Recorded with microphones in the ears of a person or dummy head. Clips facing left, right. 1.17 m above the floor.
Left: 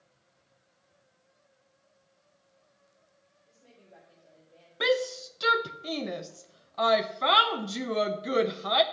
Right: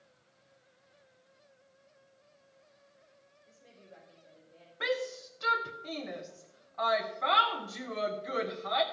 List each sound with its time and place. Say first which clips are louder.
3.5 s a woman speaking: right 1 dB; 5° left (ahead or behind), 4.5 m; by 4.7 s 15° left (ahead or behind), 4.5 m
4.8 s a shout: left 7 dB; 55° left (ahead or behind), 0.6 m